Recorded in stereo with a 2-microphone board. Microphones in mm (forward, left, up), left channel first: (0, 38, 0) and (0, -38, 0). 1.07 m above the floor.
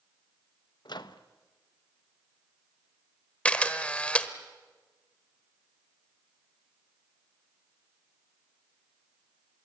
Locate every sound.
0.8 s a microwave: 70° left (ahead or behind), 0.9 m
3.5 s a camera shutter: 15° left (ahead or behind), 1.3 m